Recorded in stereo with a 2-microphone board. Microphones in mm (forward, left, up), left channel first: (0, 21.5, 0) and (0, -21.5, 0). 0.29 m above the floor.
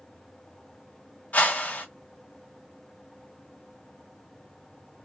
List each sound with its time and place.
1.3 s a whoosh: 40° left (ahead or behind), 0.7 m